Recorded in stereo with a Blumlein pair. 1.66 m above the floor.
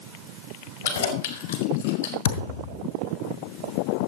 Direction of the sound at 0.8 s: 65° left.